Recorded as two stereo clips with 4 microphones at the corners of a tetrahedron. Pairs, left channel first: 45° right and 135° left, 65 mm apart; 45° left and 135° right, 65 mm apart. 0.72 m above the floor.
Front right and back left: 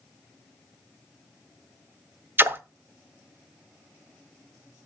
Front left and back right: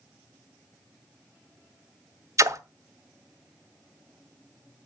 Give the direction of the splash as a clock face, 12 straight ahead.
6 o'clock.